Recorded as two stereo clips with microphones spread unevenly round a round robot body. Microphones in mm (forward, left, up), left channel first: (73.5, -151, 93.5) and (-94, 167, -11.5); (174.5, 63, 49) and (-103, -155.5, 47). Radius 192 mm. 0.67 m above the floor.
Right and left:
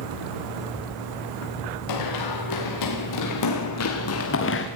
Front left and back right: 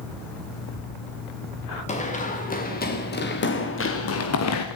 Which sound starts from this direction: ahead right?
Running footsteps, at 1.9 s.